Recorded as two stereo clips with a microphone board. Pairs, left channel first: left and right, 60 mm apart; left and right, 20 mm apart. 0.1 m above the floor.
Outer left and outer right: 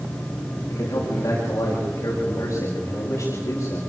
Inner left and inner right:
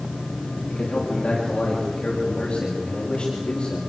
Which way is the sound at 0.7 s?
50° left (ahead or behind).